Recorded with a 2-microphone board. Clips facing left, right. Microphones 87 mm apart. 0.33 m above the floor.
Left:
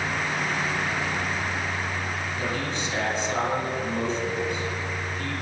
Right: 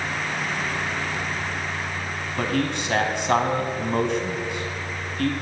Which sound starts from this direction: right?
A man speaking, at 2.4 s.